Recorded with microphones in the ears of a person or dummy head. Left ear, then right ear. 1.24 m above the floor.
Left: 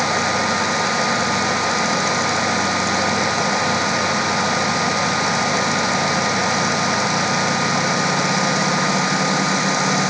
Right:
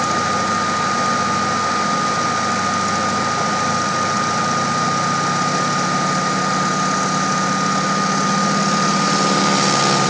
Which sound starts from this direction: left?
A fan, at 0.0 s.